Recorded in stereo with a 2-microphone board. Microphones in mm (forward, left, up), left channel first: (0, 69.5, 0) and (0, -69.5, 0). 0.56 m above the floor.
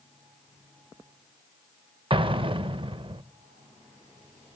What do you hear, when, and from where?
2.1 s an explosion: 40° right (ahead or behind), 0.5 m